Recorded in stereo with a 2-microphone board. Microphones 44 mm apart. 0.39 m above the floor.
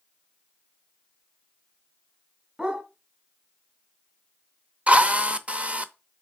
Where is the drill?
30° right (ahead or behind), 0.7 m.